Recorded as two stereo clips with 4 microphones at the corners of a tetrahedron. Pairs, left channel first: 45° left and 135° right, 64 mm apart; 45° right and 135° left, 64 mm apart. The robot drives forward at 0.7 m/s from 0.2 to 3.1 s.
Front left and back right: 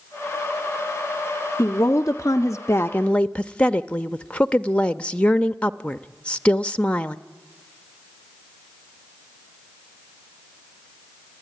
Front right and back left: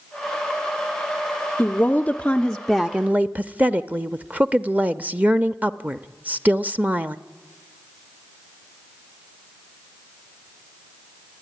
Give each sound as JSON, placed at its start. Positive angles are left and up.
{"t": 1.6, "sound": "a woman speaking", "azimuth_deg": 15, "distance_m": 1.1}